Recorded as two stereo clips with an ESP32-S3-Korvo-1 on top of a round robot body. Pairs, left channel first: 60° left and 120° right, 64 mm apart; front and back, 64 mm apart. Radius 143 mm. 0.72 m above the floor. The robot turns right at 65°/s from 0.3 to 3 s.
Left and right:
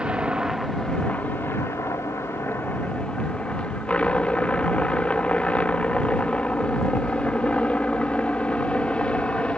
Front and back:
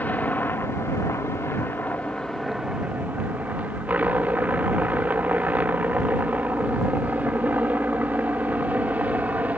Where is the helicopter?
50° right; by 9.6 s 125° left.